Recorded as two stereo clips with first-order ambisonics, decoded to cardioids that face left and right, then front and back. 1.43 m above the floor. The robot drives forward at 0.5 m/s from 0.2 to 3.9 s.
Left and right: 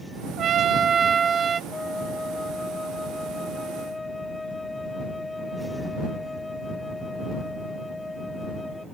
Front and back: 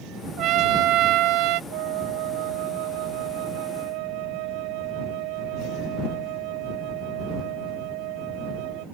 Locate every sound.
0.4 s a trumpet: 140° right; by 1.6 s 160° right
1.7 s a flute: 170° left